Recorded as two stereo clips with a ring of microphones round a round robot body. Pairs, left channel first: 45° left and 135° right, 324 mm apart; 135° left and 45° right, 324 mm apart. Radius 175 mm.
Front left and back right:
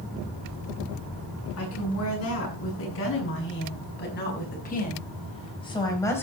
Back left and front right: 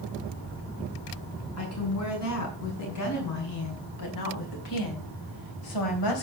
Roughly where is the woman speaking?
Left.